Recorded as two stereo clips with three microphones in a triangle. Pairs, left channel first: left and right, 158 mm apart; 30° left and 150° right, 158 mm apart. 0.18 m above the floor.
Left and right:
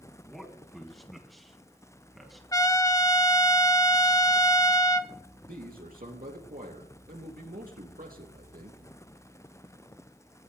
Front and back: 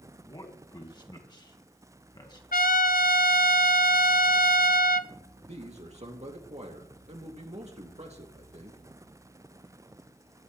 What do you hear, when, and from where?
0.2 s a man speaking: straight ahead, 1.5 m
2.5 s a trumpet: 25° left, 0.8 m
5.5 s a man speaking: 105° right, 3 m